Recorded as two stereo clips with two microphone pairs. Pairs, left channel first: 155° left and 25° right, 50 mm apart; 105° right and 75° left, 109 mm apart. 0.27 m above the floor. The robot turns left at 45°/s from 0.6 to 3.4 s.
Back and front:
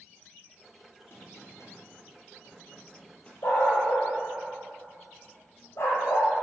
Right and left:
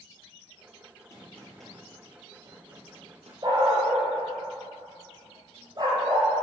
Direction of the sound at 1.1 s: 170° right.